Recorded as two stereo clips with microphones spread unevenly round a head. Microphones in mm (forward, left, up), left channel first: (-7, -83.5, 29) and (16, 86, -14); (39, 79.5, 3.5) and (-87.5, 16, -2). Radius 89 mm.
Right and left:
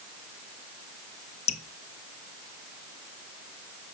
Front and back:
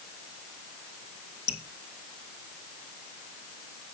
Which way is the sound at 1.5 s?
40° right.